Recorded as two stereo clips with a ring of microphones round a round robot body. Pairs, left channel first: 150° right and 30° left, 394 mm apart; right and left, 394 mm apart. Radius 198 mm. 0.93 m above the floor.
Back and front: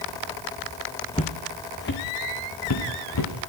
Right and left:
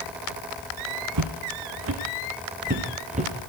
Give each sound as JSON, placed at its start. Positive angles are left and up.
{"t": 1.1, "sound": "footsteps", "azimuth_deg": 130, "distance_m": 2.5}